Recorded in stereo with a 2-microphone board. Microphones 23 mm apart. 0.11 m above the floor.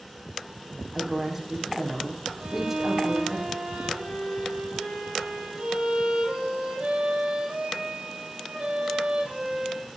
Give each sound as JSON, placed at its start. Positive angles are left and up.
{"t": 0.9, "sound": "a woman speaking", "side_deg": -15, "distance_m": 4.5}
{"t": 2.4, "sound": "a violin", "side_deg": -65, "distance_m": 5.0}